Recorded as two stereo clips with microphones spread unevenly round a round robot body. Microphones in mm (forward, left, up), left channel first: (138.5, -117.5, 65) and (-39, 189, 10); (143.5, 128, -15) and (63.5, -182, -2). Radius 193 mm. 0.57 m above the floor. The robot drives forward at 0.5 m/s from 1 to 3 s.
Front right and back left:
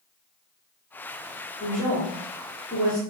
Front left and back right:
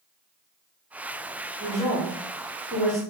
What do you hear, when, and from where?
1.6 s a woman speaking: 110° right, 1.2 m; by 3.0 s 160° right, 1.4 m